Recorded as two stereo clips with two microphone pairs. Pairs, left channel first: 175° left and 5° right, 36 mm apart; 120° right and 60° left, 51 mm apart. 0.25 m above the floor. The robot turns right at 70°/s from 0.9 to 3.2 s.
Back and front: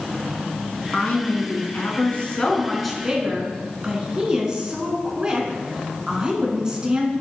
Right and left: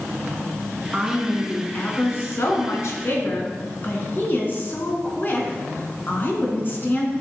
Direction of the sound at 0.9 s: 125° left.